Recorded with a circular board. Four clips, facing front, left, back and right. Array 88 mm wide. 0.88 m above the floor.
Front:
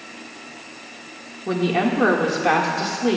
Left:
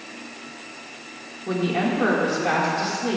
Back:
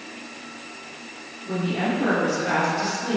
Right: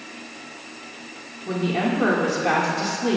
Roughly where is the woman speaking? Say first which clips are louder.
Even, front 5 dB; ahead.